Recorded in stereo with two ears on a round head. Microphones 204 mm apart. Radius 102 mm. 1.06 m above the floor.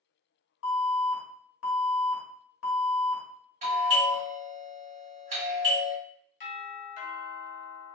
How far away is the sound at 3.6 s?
About 2.0 m.